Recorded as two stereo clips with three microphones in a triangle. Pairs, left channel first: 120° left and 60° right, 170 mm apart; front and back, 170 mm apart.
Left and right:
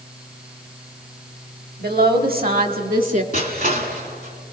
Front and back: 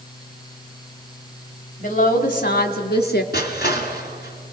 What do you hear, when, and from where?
1.8 s a woman speaking: 40° right, 2.5 m; by 3.2 s 20° right, 2 m
3.3 s crushing: 30° right, 3 m